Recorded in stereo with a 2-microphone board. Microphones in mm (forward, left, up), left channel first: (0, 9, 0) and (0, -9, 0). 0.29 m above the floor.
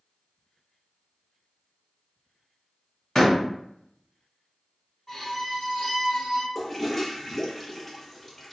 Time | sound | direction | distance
3.1 | a door slam | 30° left (ahead or behind) | 1.5 m
5.1 | a violin | 30° left (ahead or behind) | 1.5 m
6.5 | a toilet flushing | 15° left (ahead or behind) | 0.7 m